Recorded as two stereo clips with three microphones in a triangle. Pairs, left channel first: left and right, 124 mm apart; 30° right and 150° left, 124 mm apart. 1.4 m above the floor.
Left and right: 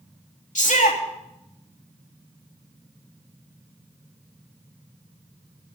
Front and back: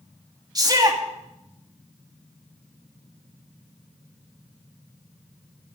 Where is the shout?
90° left, 3 m.